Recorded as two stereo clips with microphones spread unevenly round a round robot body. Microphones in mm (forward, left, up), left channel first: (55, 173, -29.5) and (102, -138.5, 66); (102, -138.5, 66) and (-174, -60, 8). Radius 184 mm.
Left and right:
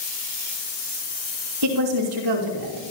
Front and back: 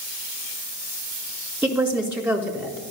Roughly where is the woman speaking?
Behind right.